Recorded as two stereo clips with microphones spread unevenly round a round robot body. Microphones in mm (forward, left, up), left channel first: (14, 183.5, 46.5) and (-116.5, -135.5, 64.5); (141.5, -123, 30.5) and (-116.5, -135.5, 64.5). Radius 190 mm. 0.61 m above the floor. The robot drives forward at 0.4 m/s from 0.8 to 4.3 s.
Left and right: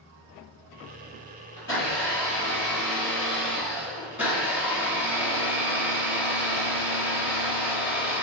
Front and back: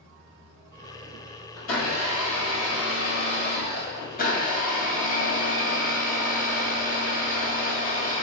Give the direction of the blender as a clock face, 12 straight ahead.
12 o'clock.